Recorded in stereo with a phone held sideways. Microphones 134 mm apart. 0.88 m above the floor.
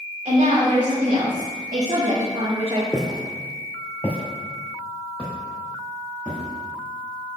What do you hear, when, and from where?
0.2 s a woman speaking: 80° right, 2.5 m; by 2.8 s 40° right (ahead or behind), 0.9 m
2.9 s footsteps: 5° left (ahead or behind), 1.0 m